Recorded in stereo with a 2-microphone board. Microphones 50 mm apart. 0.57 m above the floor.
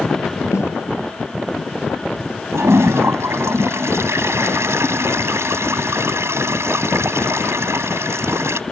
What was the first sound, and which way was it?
A snare drum, 65° left (ahead or behind).